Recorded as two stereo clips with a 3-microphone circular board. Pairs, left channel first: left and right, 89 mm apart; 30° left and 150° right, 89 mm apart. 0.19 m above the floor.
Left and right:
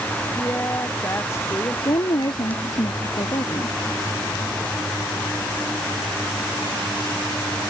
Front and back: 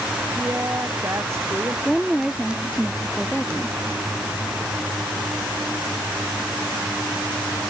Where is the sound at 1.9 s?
125° left.